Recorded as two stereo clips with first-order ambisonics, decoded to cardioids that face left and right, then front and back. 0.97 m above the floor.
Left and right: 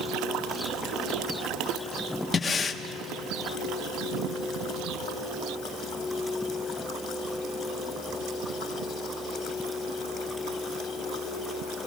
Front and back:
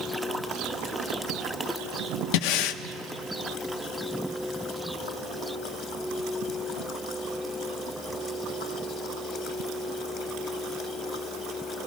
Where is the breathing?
10° left, 0.8 m.